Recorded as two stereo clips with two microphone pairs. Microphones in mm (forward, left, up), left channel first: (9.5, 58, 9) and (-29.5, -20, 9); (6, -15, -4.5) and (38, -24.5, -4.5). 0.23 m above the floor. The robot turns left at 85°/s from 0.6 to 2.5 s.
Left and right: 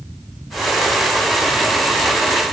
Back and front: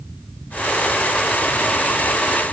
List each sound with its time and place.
Only background noise.